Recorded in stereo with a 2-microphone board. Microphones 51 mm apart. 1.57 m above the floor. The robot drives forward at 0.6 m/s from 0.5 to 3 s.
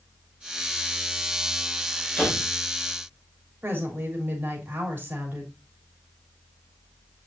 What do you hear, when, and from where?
2.2 s a door slam: 20° left (ahead or behind), 6 m
3.6 s a woman speaking: 40° right (ahead or behind), 3.5 m